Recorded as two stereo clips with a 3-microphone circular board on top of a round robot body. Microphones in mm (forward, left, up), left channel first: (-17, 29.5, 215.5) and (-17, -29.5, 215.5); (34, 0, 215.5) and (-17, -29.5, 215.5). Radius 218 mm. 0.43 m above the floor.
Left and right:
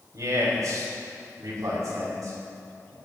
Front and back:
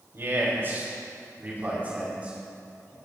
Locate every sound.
0.1 s a man speaking: 105° right, 3.5 m; by 3.0 s 80° right, 6 m